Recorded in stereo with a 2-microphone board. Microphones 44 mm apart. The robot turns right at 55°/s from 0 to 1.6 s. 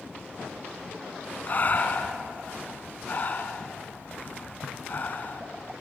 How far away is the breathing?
About 1.6 m.